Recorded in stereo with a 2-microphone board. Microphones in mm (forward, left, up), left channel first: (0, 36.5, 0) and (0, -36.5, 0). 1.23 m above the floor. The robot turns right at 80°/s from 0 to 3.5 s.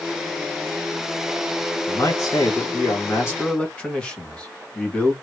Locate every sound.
1.9 s a man speaking: 35° left, 2.5 m; by 5.1 s 165° left, 2.5 m